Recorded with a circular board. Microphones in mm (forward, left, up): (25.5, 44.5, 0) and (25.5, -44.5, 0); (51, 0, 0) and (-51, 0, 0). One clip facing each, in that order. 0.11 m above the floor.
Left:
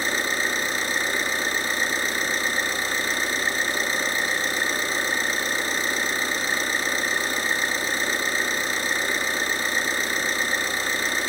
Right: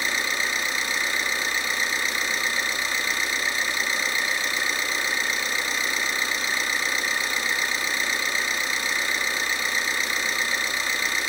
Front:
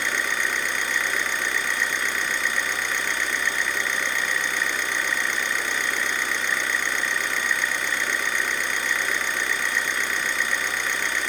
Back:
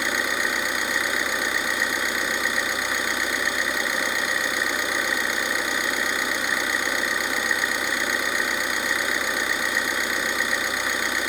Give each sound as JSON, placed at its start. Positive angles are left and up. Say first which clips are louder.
{"t": 0.0, "sound": "an engine running", "louder": "left 2 dB, back 1 dB", "azimuth_deg": 105, "distance_m": 0.9}